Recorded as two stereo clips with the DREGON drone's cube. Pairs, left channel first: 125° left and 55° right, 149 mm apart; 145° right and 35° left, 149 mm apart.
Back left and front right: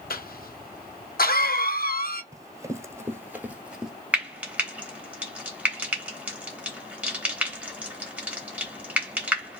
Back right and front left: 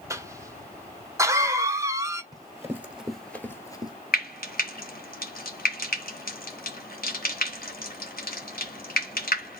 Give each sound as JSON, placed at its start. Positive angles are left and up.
{"t": 0.1, "sound": "a cough", "azimuth_deg": 105, "distance_m": 0.8}
{"t": 2.3, "sound": "running footsteps", "azimuth_deg": -5, "distance_m": 1.1}
{"t": 4.1, "sound": "frying", "azimuth_deg": -135, "distance_m": 1.1}